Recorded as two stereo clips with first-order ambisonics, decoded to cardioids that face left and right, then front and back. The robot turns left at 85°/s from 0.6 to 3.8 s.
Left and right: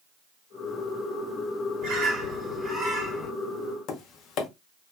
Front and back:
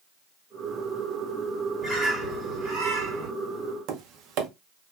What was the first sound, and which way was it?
A bird, 80° right.